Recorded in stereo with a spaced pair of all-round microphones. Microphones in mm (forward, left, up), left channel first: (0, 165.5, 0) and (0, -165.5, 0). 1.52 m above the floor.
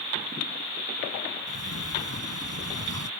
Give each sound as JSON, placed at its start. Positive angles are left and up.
{"t": 1.5, "sound": "a sliding door", "side_deg": -50}